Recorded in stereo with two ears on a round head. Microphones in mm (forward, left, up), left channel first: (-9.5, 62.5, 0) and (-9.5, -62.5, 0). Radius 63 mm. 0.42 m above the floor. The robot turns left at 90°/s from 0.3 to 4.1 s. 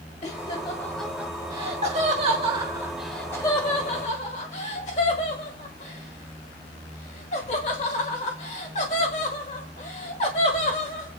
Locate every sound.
0.2 s laughter: 45° left (ahead or behind), 1.1 m; by 11.1 s 50° left (ahead or behind), 1.1 m